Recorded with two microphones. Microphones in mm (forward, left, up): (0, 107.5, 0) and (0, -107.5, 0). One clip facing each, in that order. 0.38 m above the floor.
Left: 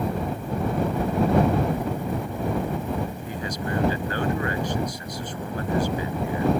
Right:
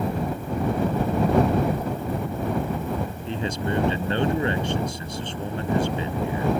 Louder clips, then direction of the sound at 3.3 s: Right 3 dB; 25° right (ahead or behind).